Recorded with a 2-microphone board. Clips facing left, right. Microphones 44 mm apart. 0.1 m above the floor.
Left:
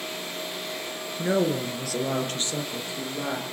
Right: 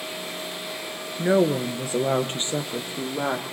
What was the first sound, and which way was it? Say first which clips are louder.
A woman speaking: right 4 dB; 15° right (ahead or behind).